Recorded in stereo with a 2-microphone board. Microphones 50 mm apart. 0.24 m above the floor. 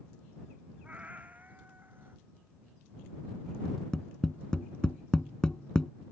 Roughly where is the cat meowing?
Right.